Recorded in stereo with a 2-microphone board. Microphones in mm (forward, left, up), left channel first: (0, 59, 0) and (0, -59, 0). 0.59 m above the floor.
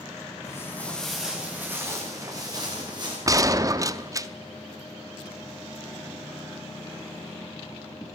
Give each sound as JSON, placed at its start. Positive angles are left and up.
{"t": 0.4, "sound": "footsteps", "side_deg": 25, "distance_m": 2.5}
{"t": 3.3, "sound": "a gunshot", "side_deg": -30, "distance_m": 0.5}